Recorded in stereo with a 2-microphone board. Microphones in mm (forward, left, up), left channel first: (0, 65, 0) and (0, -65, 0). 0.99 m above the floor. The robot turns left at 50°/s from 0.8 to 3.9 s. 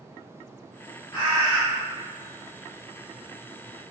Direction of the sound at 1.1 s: 50° left (ahead or behind).